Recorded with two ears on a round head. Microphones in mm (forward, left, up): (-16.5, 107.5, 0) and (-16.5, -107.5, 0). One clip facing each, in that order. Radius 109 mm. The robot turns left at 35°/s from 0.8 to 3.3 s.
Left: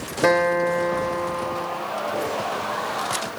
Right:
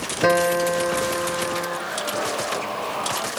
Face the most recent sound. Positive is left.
turn(degrees=-95)